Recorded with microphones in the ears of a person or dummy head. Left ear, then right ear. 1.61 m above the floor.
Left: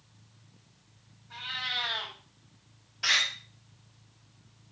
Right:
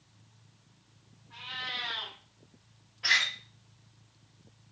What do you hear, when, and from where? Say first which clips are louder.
1.3 s a cat meowing: left 4 dB; 70° left (ahead or behind), 3.5 m
3.0 s a door slam: even; 80° left, 5.5 m